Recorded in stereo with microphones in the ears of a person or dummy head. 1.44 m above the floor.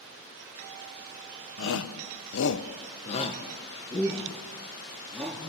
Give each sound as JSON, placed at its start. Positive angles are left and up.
{"t": 1.6, "sound": "a shout", "side_deg": 60, "distance_m": 1.2}